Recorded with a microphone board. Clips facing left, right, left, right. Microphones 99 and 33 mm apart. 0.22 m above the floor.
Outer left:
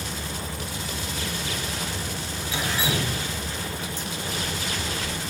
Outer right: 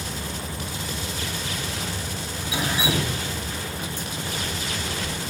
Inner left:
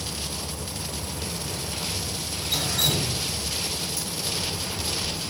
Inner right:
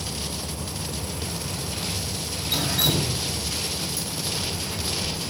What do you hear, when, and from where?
2.5 s dripping: 15° right (ahead or behind), 1.0 m